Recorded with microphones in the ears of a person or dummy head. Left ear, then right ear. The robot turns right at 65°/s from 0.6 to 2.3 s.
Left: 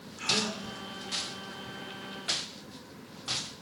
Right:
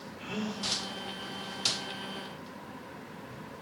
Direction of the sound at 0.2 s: 35° left (ahead or behind).